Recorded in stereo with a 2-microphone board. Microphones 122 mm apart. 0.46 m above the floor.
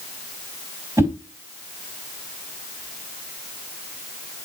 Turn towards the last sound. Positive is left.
turn(degrees=-20)  # may be behind; listen again after turning